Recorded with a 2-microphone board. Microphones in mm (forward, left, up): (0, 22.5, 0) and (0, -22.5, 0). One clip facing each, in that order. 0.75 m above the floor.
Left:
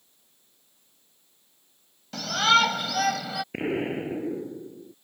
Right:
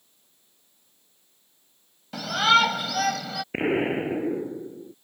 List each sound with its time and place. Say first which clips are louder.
2.1 s a shout: right 1 dB; 10° right (ahead or behind); by 3.4 s 5° left (ahead or behind)
3.5 s an explosion: right 5 dB; 30° right (ahead or behind)